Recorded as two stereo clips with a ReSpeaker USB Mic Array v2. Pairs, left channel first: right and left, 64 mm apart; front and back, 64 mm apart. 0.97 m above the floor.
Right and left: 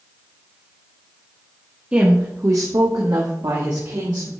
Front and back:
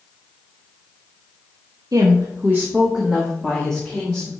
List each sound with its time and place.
1.9 s a woman speaking: 165° left, 0.9 m; by 4.3 s 75° left, 1.9 m